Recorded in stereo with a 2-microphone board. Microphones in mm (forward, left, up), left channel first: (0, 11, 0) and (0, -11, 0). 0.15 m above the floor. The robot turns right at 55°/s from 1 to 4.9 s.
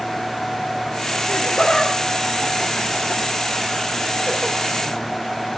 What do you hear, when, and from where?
1.3 s laughter: 65° left (ahead or behind), 3 m; by 4.6 s 65° right (ahead or behind), 3 m